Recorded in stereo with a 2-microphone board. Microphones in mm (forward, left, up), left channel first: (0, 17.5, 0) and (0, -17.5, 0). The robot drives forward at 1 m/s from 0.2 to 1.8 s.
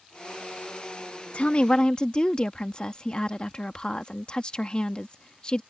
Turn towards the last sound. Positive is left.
turn(degrees=30)  # may be behind; listen again after turning